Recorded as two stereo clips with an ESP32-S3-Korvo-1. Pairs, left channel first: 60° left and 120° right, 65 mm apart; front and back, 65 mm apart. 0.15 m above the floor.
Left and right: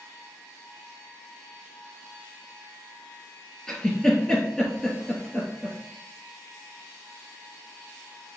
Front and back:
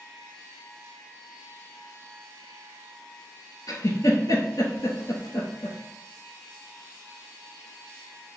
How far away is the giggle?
About 0.9 m.